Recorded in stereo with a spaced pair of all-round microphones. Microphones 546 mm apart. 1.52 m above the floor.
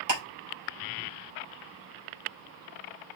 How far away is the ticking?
About 3.5 m.